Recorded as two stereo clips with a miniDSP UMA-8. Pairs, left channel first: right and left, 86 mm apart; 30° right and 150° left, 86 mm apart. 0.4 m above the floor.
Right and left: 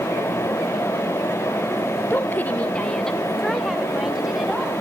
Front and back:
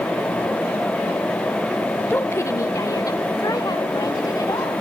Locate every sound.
2.1 s a woman speaking: 65° right, 1.1 m; by 4.8 s 5° left, 3 m